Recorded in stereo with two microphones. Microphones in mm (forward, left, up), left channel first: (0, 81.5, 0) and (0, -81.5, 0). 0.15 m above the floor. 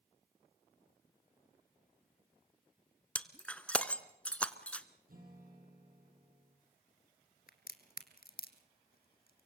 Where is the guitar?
65° right (ahead or behind), 6 m.